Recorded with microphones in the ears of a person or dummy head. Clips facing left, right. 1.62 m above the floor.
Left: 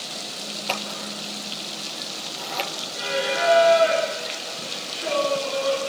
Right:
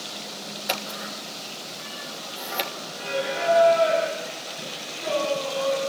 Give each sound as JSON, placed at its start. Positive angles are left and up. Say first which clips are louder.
{"t": 0.7, "sound": "scissors", "louder": "left 1 dB", "side_deg": -10, "distance_m": 2.5}
{"t": 3.0, "sound": "singing", "louder": "left 3 dB", "side_deg": 0, "distance_m": 7.0}